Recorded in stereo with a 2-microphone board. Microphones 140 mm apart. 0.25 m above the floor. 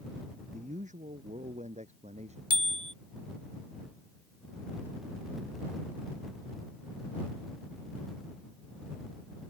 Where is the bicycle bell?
35° right (ahead or behind).